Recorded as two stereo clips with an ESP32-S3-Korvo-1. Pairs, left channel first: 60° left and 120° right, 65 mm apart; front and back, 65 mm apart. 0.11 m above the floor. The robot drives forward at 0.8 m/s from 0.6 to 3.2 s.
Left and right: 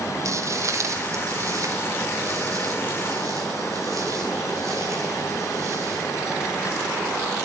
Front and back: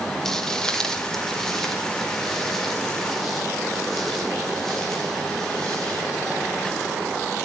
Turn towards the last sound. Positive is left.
turn(degrees=-80)